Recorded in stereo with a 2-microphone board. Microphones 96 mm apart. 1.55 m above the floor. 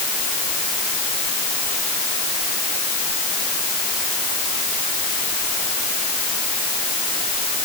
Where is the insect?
I don't hear an insect.